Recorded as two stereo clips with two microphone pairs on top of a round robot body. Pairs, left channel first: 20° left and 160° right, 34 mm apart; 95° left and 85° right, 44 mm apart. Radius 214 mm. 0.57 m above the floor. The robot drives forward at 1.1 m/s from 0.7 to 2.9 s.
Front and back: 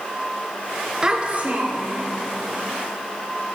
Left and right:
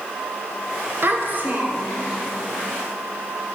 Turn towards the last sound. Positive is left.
turn(degrees=-155)